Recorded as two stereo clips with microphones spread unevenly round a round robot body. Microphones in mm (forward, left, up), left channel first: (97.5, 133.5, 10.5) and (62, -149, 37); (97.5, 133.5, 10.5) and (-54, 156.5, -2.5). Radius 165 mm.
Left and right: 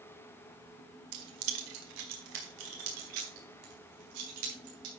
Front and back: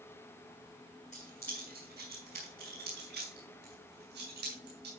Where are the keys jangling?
80° right, 1.8 m; by 4.9 s 140° right, 6 m.